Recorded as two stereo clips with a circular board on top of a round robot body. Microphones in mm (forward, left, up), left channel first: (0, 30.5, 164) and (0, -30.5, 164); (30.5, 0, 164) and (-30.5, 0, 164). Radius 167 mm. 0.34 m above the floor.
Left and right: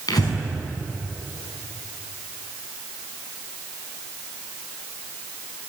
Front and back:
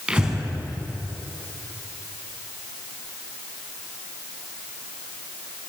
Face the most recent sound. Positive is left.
turn(degrees=100)